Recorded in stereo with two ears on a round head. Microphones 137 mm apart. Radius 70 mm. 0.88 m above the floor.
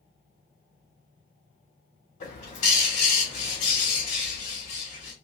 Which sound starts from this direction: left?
A bird, at 2.2 s.